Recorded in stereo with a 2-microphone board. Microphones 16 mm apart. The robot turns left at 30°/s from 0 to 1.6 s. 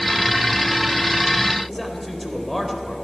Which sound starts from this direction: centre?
A man speaking, at 1.7 s.